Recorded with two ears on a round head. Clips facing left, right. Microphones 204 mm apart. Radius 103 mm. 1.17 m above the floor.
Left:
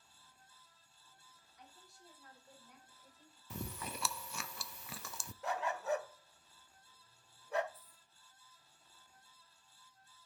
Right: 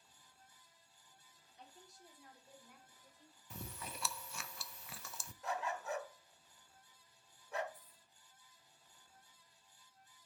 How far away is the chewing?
About 0.5 m.